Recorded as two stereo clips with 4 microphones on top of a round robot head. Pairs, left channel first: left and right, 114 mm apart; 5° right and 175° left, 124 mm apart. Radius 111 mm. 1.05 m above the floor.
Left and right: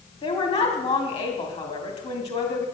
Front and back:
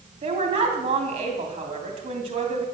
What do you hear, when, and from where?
0.2 s a woman speaking: 130° left, 2.5 m